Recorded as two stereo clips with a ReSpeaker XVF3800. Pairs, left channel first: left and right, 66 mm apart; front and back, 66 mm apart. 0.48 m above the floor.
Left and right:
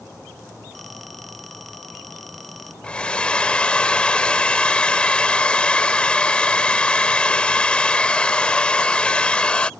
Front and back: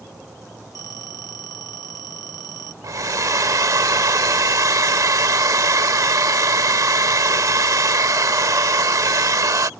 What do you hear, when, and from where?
0.8 s a phone ringing: straight ahead
2.8 s a hair dryer: 160° left